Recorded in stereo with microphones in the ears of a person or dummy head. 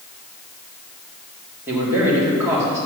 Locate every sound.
1.7 s a man speaking: 10° right (ahead or behind), 2.5 m